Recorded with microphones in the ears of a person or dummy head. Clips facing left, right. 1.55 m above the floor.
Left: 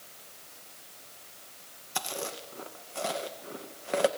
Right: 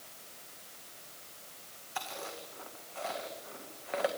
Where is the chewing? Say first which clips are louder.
Left 5 dB; 45° left (ahead or behind), 1.8 m.